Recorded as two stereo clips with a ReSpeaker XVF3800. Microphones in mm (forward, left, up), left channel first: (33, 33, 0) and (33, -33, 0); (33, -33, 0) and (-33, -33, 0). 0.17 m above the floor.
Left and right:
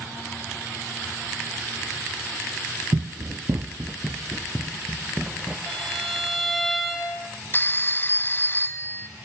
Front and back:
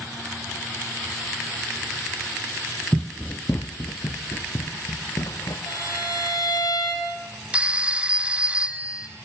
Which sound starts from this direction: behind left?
A phone ringing, at 7.5 s.